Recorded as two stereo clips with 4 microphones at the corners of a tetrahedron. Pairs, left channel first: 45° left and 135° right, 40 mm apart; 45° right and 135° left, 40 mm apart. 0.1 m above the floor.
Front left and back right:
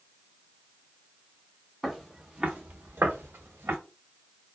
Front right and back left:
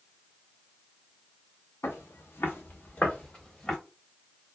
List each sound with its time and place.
1.8 s footsteps: 45° right, 1.1 m; by 3.8 s 120° right, 1.7 m